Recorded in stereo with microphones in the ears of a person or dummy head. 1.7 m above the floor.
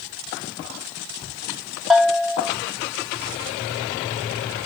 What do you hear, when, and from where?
1.9 s a bell: centre (ahead or behind), 1.3 m